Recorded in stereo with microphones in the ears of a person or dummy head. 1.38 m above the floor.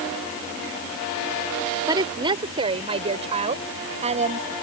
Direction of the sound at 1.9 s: 20° right (ahead or behind).